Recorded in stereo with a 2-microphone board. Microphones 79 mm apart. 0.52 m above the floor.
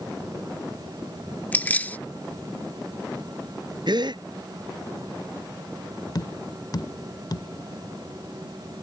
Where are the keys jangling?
20° left (ahead or behind).